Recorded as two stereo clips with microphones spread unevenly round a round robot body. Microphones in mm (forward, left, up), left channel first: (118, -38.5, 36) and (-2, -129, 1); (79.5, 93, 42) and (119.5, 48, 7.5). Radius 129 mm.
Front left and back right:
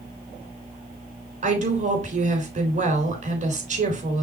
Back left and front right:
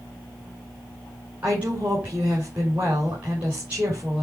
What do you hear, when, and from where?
1.4 s a woman speaking: 110° right, 3 m